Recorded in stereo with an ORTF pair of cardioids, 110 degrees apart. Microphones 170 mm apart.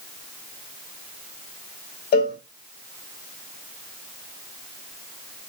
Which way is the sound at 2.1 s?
65° left.